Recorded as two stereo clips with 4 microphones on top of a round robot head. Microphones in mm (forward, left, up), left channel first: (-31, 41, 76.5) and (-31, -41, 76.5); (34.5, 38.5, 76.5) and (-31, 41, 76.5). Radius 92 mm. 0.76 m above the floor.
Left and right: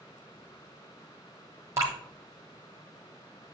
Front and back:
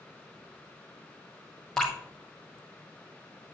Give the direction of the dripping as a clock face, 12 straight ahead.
3 o'clock.